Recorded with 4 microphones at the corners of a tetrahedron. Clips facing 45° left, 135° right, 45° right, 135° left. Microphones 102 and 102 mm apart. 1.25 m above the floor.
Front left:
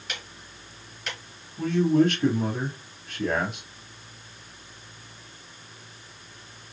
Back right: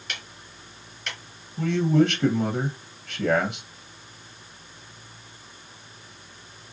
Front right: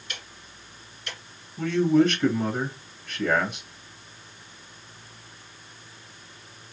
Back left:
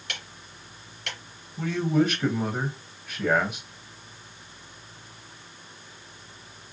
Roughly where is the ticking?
Behind left.